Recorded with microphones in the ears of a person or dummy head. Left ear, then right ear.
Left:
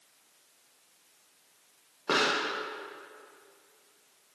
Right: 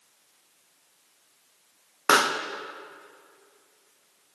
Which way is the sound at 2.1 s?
65° right (ahead or behind).